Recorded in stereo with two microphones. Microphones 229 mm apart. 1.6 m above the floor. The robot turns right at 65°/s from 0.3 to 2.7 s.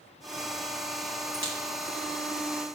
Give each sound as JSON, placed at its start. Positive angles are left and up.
{"t": 1.3, "sound": "a crack", "side_deg": 55, "distance_m": 3.5}